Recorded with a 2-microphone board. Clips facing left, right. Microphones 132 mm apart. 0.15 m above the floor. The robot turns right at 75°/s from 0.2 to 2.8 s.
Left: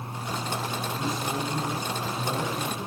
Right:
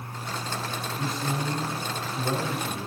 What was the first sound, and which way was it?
A man speaking, 175° left.